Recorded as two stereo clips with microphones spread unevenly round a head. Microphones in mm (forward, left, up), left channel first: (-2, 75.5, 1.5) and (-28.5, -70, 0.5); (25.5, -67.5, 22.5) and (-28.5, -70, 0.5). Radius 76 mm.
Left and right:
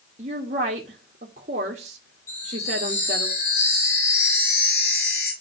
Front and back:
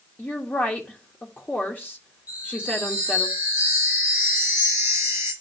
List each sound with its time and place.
0.2 s a woman speaking: 60° right, 1.2 m
2.3 s a chime: 50° left, 7 m